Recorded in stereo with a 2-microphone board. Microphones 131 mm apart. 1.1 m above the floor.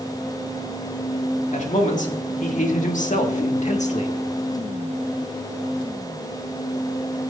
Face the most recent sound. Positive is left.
turn(degrees=55)  # may be behind; listen again after turning